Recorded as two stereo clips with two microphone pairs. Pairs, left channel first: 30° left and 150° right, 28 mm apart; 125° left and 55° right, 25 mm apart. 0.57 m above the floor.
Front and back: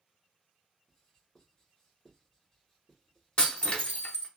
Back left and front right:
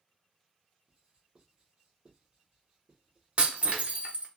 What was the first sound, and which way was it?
Writing, 25° right.